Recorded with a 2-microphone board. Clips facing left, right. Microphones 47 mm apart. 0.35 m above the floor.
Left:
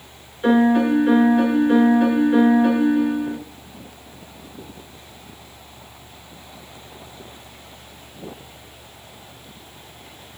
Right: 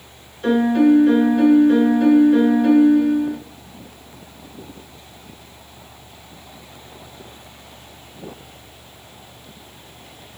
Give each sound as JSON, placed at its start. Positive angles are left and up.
{"t": 0.4, "sound": "a piano", "side_deg": 15, "distance_m": 4.0}